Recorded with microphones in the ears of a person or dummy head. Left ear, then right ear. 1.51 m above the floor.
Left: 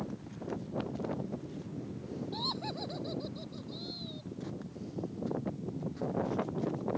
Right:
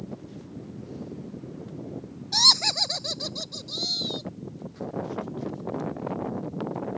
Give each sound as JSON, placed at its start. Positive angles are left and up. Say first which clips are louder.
{"t": 2.3, "sound": "laughter", "louder": "right 19 dB", "side_deg": -60}